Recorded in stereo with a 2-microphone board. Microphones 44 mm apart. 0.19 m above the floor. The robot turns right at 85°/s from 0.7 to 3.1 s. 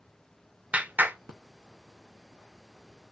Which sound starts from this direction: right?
A clap, at 0.7 s.